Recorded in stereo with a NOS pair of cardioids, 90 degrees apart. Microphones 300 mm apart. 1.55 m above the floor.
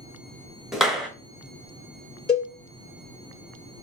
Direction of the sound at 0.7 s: Straight ahead.